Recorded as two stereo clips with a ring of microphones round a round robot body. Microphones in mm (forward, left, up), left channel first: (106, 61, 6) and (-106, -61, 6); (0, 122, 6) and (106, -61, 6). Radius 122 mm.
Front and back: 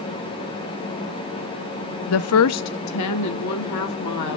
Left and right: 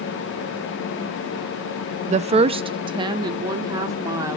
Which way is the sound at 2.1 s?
5° right.